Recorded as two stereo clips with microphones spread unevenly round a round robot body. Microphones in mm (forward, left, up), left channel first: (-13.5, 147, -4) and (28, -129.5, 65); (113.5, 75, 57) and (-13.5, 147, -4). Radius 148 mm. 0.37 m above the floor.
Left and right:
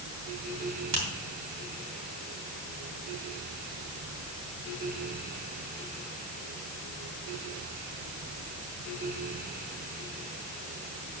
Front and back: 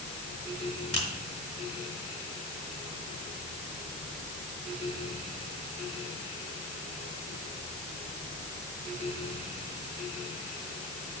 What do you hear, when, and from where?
0.9 s a finger snap: 85° right, 4.5 m